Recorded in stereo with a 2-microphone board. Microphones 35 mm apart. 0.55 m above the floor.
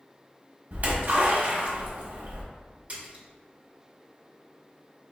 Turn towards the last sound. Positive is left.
turn(degrees=-40)  # may be behind; listen again after turning